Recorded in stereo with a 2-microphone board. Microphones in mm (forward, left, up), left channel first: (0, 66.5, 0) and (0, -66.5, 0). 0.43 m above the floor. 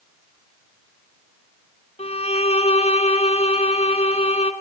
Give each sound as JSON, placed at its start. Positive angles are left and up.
{"t": 2.0, "sound": "a violin", "side_deg": 55, "distance_m": 1.7}